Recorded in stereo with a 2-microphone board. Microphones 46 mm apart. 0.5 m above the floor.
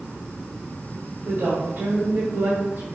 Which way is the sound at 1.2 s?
55° right (ahead or behind).